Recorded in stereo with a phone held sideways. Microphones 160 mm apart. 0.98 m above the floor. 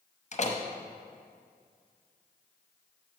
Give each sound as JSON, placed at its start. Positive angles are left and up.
{"t": 0.3, "sound": "a door slam", "side_deg": 45, "distance_m": 0.7}